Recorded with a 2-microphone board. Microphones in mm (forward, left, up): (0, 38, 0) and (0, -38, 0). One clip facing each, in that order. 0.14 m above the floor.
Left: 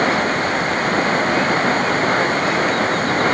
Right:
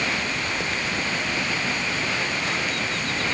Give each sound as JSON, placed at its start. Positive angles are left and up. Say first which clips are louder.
{"t": 0.0, "sound": "running water", "louder": "left 10 dB", "side_deg": 50}